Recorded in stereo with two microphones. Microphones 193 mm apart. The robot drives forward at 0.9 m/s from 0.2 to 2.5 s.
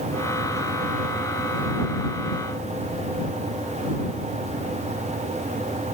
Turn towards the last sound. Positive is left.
No sound to turn to.